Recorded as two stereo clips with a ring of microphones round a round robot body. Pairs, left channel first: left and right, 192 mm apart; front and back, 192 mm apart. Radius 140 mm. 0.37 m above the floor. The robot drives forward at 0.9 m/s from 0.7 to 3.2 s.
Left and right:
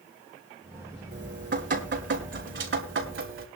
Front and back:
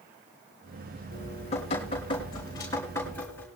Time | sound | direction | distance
1.1 | dripping | 60° right | 5.5 m